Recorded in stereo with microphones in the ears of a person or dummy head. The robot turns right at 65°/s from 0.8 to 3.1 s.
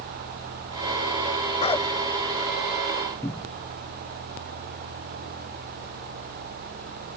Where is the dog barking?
45° left (ahead or behind); by 1.9 s 20° left (ahead or behind).